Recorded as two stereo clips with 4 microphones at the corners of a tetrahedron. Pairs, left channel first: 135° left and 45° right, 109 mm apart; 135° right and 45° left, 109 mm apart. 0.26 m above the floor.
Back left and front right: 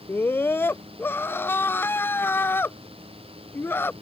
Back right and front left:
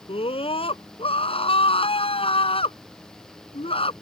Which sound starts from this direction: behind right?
A scream, at 0.1 s.